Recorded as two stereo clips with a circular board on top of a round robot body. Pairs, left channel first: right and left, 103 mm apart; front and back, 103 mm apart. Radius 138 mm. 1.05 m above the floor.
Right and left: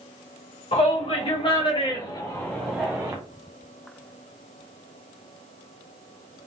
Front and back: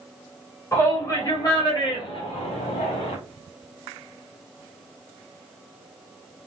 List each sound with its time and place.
0.7 s a shout: 65° right, 1.8 m; by 3.1 s 25° left, 0.8 m